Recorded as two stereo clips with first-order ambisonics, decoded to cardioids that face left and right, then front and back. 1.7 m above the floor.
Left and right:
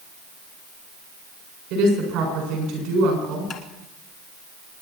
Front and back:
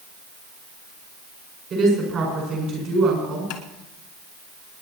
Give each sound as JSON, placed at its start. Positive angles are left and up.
{"t": 1.7, "sound": "a woman speaking", "azimuth_deg": -125, "distance_m": 6.5}
{"t": 3.5, "sound": "tapping", "azimuth_deg": 25, "distance_m": 1.8}